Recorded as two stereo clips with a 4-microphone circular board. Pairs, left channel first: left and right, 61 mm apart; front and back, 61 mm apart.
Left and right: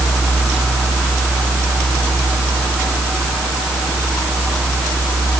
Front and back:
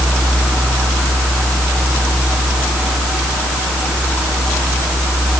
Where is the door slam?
No door slam in this recording.